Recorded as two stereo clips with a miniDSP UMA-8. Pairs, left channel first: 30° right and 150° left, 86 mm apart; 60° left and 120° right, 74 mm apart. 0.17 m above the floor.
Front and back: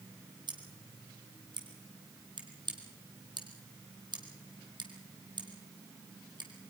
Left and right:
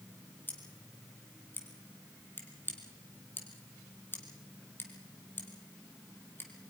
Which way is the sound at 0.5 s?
120° left.